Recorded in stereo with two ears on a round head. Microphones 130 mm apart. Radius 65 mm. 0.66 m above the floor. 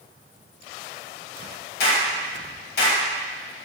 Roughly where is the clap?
Left.